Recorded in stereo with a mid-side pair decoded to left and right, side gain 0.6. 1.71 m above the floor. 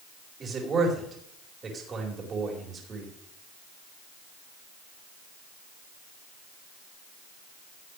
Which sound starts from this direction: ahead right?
A man speaking, at 0.4 s.